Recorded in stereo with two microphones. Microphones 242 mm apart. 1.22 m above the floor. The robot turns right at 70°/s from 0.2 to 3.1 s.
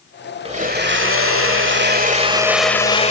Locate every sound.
0.5 s a blender: 155° right, 1.6 m; by 3.1 s 35° left, 1.6 m